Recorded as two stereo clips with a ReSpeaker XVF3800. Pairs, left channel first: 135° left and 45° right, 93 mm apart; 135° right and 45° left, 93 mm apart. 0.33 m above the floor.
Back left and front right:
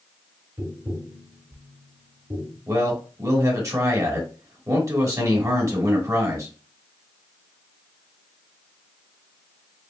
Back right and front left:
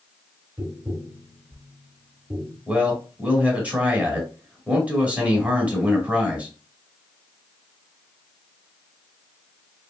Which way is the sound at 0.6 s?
10° left.